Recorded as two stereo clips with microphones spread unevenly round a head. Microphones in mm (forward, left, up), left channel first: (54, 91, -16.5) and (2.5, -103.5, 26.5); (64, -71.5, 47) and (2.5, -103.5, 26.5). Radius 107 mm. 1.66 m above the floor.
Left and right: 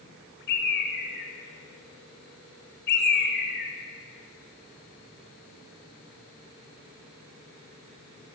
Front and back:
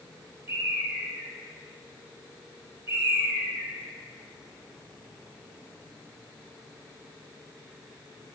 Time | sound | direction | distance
0.5 | a bird | 120° left | 3 m